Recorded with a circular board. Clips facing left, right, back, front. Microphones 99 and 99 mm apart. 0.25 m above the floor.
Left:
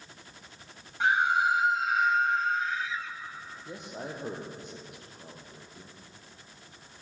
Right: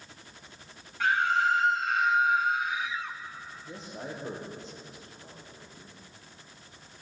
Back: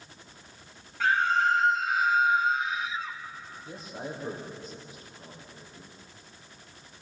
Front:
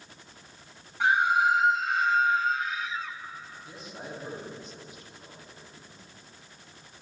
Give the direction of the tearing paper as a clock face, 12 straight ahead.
I don't hear tearing paper.